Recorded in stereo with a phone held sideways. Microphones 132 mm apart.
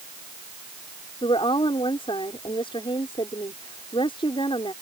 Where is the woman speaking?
40° left (ahead or behind).